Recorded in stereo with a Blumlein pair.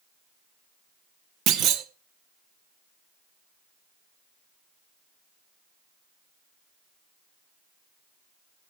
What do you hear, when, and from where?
1.5 s a clunk: 35° right, 1.4 m